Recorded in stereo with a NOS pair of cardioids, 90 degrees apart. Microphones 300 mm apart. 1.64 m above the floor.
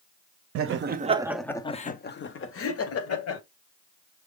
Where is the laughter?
50° right, 0.7 m; by 3.4 s 55° left, 1.5 m.